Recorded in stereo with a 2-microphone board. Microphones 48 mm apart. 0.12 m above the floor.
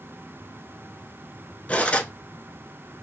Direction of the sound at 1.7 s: 30° left (ahead or behind).